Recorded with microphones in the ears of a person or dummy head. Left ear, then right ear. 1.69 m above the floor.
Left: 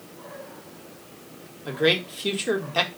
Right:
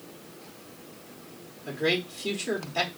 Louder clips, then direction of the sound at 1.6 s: Left 5 dB; 35° left (ahead or behind).